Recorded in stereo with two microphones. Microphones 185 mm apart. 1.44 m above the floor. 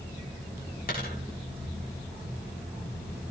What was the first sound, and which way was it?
A dropped coin, 50° left (ahead or behind).